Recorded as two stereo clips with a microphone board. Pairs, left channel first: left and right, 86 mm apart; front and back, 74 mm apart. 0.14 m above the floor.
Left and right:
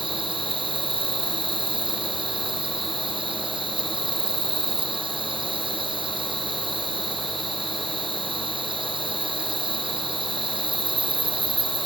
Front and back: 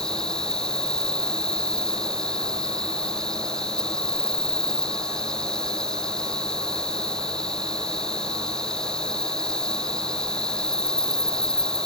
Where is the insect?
80° right.